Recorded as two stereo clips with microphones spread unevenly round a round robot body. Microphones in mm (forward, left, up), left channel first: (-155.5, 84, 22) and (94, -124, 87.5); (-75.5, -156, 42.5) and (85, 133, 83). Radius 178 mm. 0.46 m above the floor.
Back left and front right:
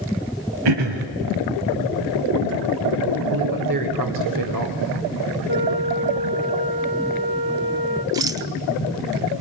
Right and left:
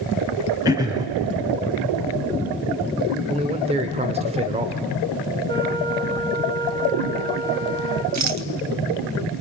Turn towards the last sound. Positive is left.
turn(degrees=50)